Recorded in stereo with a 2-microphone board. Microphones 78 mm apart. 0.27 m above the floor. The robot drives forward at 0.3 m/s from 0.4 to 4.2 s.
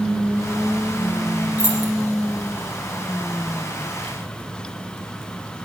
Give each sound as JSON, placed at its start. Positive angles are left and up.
{"t": 1.6, "sound": "keys jangling", "side_deg": -20, "distance_m": 7.5}